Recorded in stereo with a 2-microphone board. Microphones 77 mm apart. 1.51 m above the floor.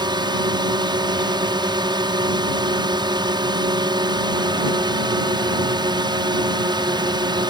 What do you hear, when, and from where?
0.0 s a drone: 70° right (ahead or behind)